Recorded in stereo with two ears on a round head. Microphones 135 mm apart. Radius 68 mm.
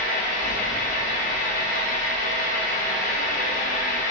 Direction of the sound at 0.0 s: 55° left (ahead or behind).